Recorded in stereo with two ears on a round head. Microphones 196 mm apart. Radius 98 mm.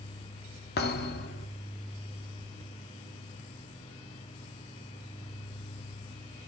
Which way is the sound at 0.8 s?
50° left (ahead or behind).